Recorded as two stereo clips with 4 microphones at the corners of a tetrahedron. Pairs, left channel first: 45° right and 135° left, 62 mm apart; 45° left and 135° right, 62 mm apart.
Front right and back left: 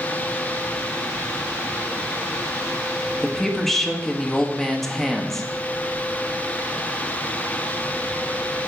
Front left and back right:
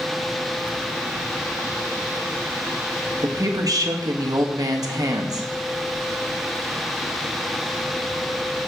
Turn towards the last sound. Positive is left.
turn(degrees=-130)